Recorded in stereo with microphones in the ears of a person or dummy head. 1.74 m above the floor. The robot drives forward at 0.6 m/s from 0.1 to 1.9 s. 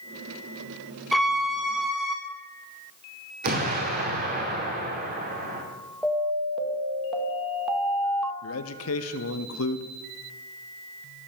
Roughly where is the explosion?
Right.